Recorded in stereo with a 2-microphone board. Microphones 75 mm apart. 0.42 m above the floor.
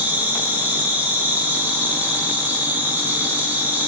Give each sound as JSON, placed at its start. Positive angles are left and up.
{"t": 0.0, "sound": "an insect", "side_deg": -25, "distance_m": 5.0}